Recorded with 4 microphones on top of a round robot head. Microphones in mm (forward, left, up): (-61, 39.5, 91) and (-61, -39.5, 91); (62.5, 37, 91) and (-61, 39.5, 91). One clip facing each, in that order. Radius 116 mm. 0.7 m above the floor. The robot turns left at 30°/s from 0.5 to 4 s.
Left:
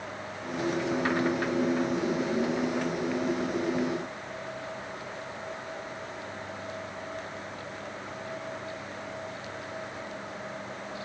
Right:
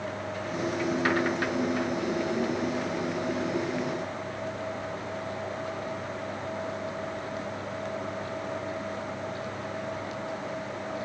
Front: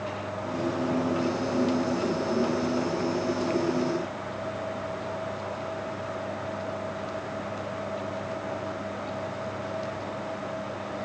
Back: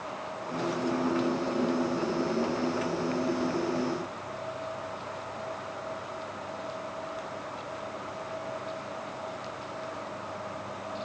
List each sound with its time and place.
Only background noise.